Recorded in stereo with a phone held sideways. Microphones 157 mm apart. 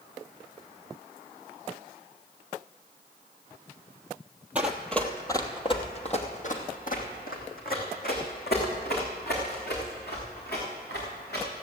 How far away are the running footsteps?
About 1.4 m.